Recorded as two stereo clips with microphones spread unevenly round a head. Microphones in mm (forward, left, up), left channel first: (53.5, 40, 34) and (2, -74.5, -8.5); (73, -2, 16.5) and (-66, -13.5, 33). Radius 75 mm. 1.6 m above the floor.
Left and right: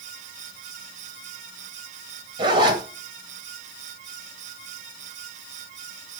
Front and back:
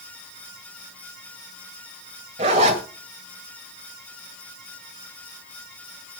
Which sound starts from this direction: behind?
A zipper, at 2.4 s.